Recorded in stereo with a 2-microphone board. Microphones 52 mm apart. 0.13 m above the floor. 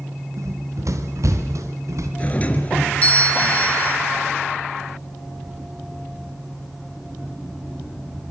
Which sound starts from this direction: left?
A doorbell, at 2.2 s.